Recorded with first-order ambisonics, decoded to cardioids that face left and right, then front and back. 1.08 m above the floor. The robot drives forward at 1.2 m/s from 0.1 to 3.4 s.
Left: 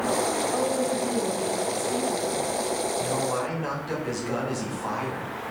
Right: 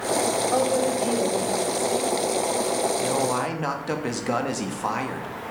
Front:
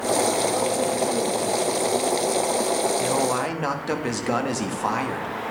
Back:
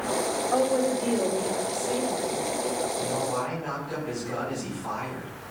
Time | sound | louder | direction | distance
0.5 | a woman speaking | right 3 dB, front 1 dB | 120° right | 3 m
3.0 | a man speaking | right 3 dB, front 5 dB | 25° right | 2.5 m